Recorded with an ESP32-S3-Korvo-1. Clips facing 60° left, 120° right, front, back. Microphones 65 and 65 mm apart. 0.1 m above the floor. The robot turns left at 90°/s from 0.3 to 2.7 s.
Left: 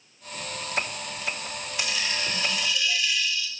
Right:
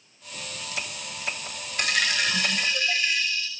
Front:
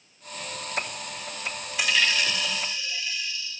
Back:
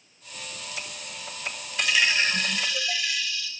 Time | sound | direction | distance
1.8 | a dropped coin | 85° right | 2.5 m